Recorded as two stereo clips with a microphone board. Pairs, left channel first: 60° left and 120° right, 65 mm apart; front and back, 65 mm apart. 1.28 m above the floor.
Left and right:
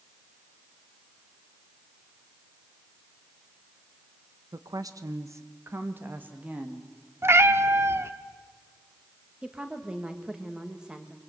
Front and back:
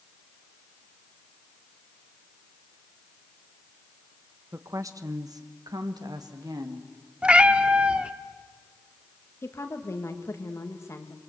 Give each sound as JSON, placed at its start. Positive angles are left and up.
{"t": 4.5, "sound": "a woman speaking", "azimuth_deg": -135, "distance_m": 1.2}
{"t": 7.2, "sound": "a cat meowing", "azimuth_deg": -115, "distance_m": 1.0}
{"t": 9.4, "sound": "a woman speaking", "azimuth_deg": -45, "distance_m": 2.0}